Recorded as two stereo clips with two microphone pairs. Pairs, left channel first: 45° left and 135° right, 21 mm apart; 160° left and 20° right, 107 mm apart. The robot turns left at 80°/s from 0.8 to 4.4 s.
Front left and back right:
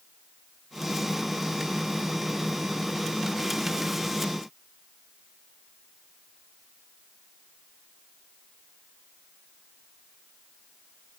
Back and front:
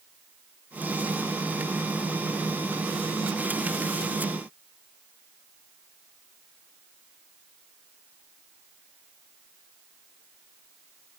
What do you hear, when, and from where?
Only background noise.